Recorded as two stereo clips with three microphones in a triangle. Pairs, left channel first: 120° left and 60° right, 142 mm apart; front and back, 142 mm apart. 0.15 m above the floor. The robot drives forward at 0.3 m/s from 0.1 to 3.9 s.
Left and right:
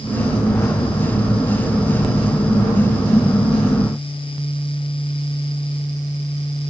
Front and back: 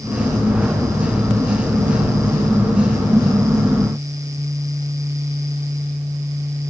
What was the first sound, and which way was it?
Only background noise.